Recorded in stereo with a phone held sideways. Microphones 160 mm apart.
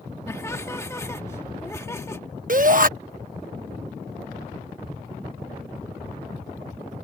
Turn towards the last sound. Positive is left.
turn(degrees=-60)  # may be behind; listen again after turning